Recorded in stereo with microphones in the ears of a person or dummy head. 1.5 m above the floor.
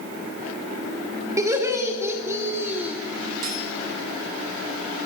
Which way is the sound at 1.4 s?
20° right (ahead or behind).